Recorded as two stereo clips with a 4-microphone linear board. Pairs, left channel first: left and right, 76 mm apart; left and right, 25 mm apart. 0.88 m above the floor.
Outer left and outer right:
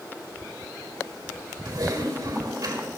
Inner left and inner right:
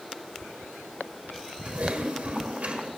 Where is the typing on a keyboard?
65° right (ahead or behind), 2.5 m.